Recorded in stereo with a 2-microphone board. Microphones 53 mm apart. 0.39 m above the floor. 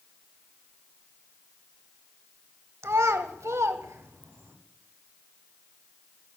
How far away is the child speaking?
About 0.9 m.